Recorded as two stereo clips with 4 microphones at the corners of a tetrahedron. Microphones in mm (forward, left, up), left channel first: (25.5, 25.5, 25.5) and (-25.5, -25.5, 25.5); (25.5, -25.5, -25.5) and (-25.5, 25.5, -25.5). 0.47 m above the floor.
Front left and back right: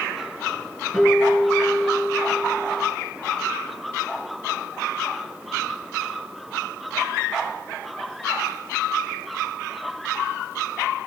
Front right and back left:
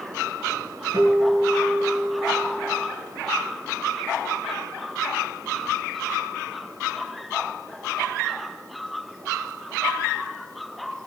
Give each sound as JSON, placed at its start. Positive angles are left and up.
{"t": 0.9, "sound": "a guitar", "azimuth_deg": 140, "distance_m": 6.0}